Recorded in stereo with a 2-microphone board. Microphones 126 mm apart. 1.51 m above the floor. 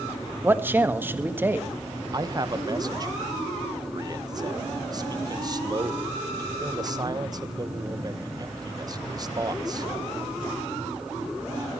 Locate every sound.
0.4 s a man speaking: 15° right (ahead or behind), 1.6 m
2.1 s a man speaking: 30° right (ahead or behind), 1.3 m